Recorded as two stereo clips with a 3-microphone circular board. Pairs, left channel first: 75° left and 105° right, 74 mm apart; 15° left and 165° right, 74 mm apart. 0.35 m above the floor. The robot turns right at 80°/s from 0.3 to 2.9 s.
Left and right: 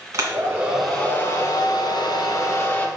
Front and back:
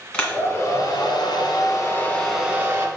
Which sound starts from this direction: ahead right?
A hair dryer, at 0.1 s.